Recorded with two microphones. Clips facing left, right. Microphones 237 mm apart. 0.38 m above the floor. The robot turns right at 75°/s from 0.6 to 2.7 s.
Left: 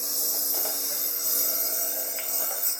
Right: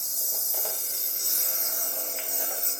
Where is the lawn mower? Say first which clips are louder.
Left 6 dB; 80° left; by 2.8 s 35° right (ahead or behind).